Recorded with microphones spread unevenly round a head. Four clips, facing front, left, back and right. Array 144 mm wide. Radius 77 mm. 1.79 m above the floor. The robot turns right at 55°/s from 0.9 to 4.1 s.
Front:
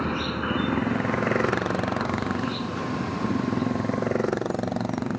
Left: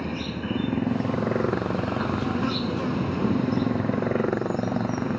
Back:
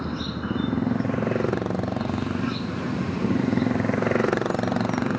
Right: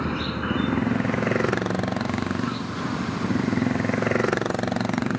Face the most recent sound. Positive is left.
turn(degrees=165)